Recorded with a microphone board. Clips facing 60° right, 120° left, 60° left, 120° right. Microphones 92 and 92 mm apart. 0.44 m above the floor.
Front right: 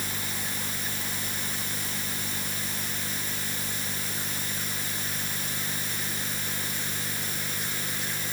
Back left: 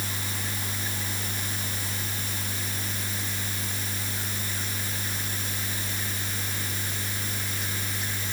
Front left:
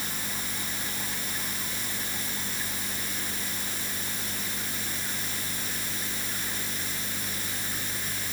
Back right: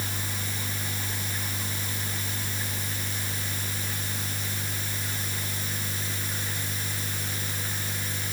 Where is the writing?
No writing in this recording.